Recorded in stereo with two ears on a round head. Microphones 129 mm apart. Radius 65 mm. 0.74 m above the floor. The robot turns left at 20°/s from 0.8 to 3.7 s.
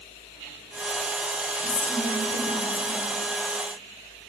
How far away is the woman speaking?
About 2.5 m.